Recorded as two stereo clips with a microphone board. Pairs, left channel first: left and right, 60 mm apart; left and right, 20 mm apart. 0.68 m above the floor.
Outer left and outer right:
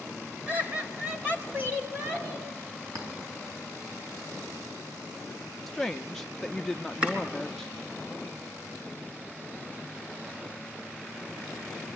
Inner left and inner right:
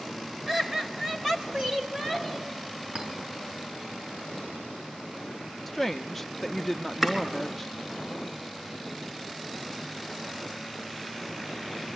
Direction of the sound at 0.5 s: 30° right (ahead or behind).